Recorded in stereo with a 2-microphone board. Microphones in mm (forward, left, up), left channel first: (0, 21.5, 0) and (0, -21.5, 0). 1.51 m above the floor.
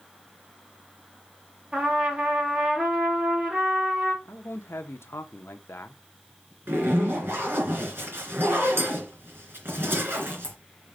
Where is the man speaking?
75° left (ahead or behind), 1.0 m.